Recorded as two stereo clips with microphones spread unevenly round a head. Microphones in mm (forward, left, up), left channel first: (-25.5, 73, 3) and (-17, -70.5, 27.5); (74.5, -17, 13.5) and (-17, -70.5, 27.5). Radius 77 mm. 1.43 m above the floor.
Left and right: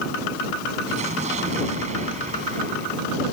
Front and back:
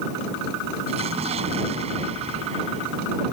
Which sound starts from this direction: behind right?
An explosion, at 0.9 s.